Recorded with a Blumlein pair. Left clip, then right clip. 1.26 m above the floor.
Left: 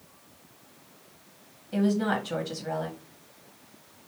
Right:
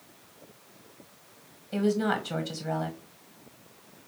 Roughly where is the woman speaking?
Ahead.